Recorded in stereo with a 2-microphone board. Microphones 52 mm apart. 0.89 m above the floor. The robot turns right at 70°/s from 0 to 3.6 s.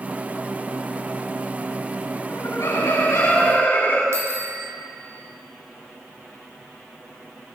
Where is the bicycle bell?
65° right (ahead or behind), 4 m.